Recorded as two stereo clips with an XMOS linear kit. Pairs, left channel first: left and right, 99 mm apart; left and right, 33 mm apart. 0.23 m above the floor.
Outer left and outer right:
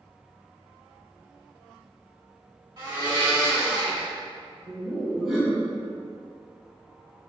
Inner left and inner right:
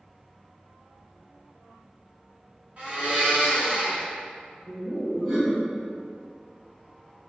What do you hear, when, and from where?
2.8 s a blender: 45° right (ahead or behind), 1.7 m
4.7 s laughter: 5° right (ahead or behind), 1.1 m